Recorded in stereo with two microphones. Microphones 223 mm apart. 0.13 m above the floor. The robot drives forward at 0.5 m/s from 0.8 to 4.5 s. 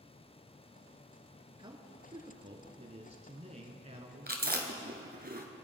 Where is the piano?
I don't hear a piano.